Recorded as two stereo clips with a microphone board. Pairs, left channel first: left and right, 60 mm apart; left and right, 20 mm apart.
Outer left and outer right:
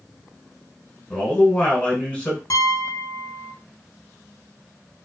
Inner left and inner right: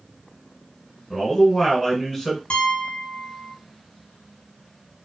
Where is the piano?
65° left (ahead or behind), 0.7 m.